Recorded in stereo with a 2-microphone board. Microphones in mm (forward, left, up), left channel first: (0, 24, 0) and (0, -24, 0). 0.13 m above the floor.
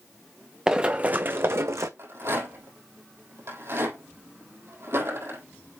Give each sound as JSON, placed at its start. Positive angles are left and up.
{"t": 0.7, "sound": "running footsteps", "side_deg": -15, "distance_m": 0.8}
{"t": 2.0, "sound": "a rattle", "side_deg": -60, "distance_m": 3.5}